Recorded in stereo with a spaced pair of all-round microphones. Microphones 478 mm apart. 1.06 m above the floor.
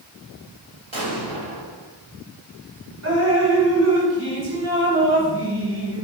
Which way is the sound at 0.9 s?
70° right (ahead or behind).